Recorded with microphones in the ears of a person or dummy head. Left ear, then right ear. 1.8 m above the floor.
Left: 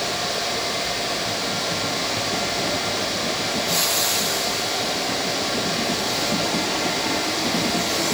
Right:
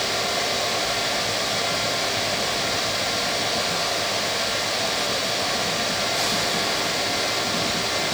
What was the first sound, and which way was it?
Only background noise.